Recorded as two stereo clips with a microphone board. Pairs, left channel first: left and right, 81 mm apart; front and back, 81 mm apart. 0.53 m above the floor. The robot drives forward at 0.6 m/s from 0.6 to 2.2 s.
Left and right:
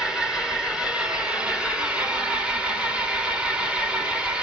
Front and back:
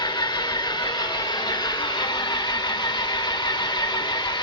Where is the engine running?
10° right, 4.5 m; by 4.4 s 15° right, 3.5 m.